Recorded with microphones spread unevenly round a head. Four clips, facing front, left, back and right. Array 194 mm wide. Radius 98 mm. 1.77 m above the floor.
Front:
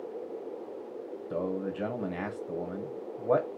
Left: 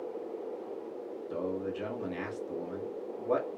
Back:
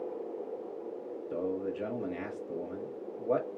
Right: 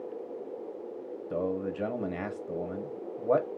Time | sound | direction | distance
1.3 | a man speaking | 45° right | 0.9 m